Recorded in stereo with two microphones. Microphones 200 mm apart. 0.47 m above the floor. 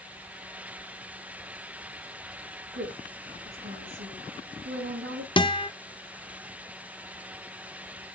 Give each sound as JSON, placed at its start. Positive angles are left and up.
{"t": 2.7, "sound": "a woman speaking", "side_deg": -75, "distance_m": 6.0}
{"t": 5.4, "sound": "a guitar", "side_deg": 25, "distance_m": 0.5}